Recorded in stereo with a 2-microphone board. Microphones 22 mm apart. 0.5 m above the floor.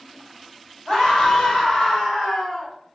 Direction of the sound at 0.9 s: 45° left (ahead or behind).